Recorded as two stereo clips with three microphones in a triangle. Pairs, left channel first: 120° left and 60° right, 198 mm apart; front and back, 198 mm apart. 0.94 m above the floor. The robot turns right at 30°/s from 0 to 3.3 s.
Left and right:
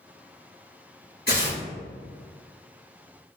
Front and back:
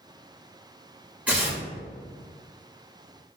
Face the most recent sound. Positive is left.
turn(degrees=160)